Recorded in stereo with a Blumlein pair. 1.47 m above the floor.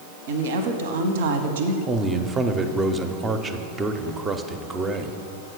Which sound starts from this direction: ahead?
A man speaking, at 1.9 s.